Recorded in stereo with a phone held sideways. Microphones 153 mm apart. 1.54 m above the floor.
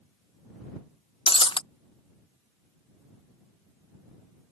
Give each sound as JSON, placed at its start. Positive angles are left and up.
{"t": 1.3, "sound": "breaking glass", "side_deg": 35}